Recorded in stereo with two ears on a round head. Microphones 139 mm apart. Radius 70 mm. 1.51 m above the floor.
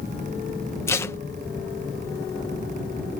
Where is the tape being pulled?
20° left (ahead or behind).